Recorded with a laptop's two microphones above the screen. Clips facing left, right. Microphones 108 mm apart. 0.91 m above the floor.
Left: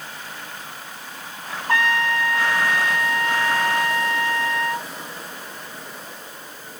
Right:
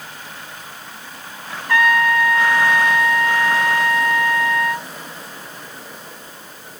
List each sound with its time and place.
1.7 s a trumpet: 30° left (ahead or behind), 2.0 m